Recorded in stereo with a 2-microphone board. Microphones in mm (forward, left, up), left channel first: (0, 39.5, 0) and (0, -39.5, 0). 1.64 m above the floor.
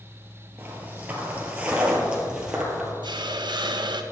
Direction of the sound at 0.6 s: 25° right (ahead or behind).